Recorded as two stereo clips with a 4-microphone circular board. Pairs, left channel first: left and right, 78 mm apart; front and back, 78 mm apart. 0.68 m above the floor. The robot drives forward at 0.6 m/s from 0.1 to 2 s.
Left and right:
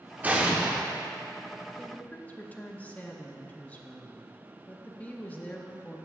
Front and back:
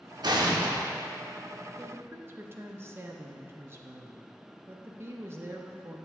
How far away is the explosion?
About 0.6 m.